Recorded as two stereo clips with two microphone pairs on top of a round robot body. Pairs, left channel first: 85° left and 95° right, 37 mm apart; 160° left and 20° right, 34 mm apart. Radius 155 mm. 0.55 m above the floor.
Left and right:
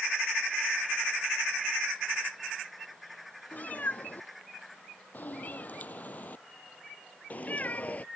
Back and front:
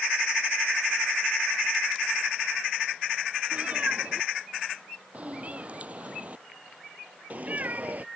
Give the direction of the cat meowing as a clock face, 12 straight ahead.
11 o'clock.